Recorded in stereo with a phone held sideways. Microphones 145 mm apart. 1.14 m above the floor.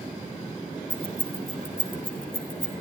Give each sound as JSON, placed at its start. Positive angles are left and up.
{"t": 0.9, "sound": "keys jangling", "side_deg": 75, "distance_m": 3.5}